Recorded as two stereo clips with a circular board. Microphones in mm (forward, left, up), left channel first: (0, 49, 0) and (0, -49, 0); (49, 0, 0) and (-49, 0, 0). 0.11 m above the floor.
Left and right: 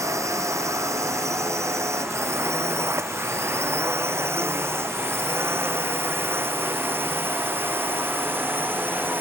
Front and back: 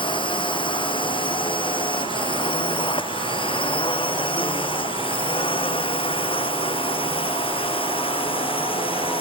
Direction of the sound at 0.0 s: 30° right.